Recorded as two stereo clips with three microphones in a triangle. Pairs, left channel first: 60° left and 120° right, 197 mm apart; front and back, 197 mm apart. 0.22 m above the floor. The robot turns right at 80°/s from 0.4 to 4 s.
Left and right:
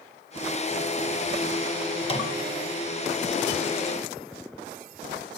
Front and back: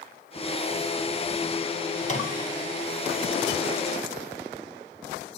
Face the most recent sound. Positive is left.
turn(degrees=170)